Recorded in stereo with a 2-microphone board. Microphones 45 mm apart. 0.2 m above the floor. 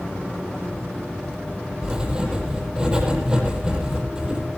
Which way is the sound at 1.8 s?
15° right (ahead or behind).